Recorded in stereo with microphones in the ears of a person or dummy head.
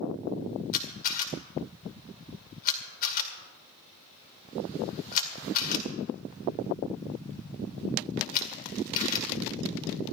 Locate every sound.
0.7 s a camera shutter: 45° left (ahead or behind), 2.0 m